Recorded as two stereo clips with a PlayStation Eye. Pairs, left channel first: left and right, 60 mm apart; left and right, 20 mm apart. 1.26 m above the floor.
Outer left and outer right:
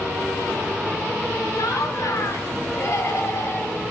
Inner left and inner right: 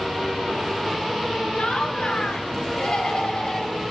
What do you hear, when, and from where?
1.6 s laughter: 75° left (ahead or behind), 3.5 m; by 3.9 s 45° left (ahead or behind), 3.5 m